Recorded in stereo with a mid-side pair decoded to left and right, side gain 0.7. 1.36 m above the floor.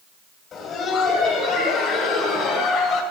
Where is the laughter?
40° left, 8 m; by 3.0 s 45° left, 7 m.